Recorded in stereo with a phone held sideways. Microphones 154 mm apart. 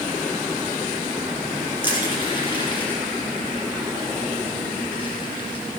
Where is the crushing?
30° left (ahead or behind), 4 m.